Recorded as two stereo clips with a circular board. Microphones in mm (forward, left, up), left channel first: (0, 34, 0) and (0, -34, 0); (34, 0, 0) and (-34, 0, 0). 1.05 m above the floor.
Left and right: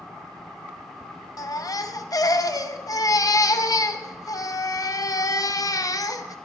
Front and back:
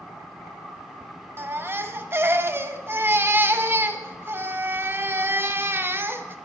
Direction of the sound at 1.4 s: 125° left.